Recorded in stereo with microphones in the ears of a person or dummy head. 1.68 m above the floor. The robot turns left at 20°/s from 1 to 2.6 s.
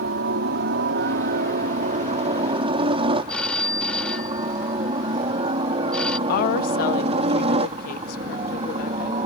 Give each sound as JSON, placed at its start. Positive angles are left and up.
{"t": 0.0, "sound": "a helicopter", "side_deg": -60}
{"t": 3.3, "sound": "a phone ringing", "side_deg": 10}
{"t": 6.3, "sound": "a woman speaking", "side_deg": 55}